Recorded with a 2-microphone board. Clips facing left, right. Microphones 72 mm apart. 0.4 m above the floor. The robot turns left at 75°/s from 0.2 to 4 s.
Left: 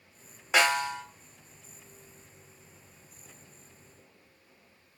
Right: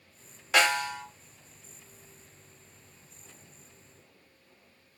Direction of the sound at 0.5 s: 160° left.